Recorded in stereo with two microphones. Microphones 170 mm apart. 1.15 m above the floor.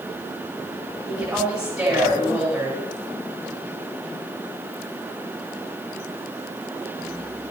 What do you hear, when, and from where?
1.1 s a woman speaking: 20° right (ahead or behind), 8 m